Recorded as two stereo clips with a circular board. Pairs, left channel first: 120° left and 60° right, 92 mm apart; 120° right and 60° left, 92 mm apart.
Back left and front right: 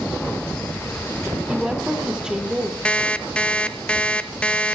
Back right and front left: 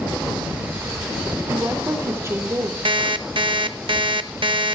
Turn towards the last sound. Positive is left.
turn(degrees=45)